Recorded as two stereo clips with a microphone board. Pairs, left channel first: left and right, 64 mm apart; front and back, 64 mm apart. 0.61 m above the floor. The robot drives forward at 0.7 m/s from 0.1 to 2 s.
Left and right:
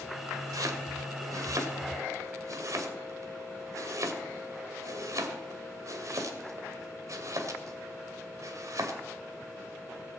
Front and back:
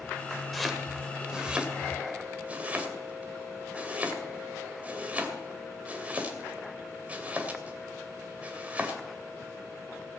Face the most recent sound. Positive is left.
turn(degrees=-115)